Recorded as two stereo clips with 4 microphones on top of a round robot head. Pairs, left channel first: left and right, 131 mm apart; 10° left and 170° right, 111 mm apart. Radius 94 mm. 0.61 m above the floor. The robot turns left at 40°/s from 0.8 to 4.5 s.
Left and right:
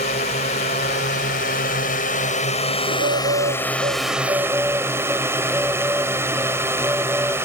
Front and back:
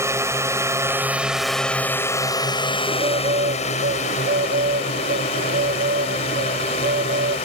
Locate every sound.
0.0 s a drone: 130° left; by 7.5 s 20° right
2.9 s a bird: 105° right; by 7.4 s 170° right